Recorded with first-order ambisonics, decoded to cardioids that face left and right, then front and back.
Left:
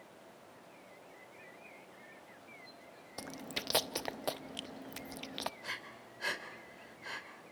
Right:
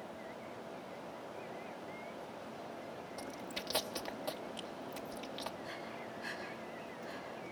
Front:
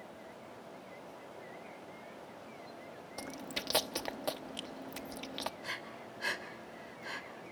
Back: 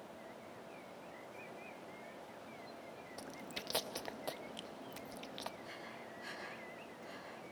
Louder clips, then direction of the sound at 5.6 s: Left 1 dB, front 7 dB; 55° left.